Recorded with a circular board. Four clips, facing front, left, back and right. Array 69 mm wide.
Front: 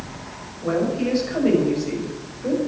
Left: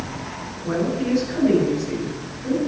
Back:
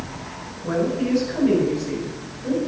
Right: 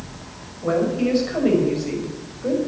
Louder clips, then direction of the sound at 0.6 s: Right 3 dB, front 1 dB; 60° right.